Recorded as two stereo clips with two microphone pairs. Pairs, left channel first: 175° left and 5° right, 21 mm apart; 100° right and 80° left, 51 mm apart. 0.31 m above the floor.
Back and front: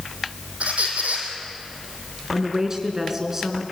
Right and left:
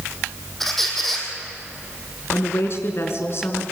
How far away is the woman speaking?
About 3 m.